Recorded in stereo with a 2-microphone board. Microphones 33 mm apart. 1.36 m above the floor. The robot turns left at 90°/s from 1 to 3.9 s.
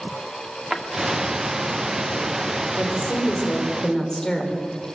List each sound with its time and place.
0.7 s a drawer: 10° right (ahead or behind), 2 m
2.8 s a woman speaking: 120° left, 4.5 m; by 4.6 s 20° left, 4.5 m